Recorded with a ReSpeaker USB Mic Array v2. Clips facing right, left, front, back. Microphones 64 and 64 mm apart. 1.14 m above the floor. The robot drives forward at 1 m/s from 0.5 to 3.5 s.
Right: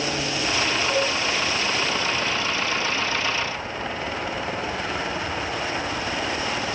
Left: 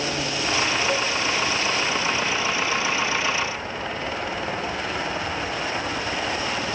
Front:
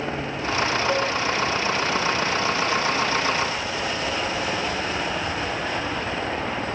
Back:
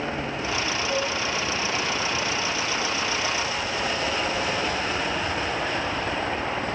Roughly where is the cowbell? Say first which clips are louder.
Right 1 dB, front 2 dB; ahead left.